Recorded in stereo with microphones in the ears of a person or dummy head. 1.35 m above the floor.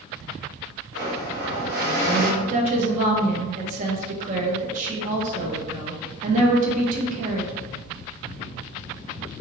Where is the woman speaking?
50° right (ahead or behind), 0.8 m.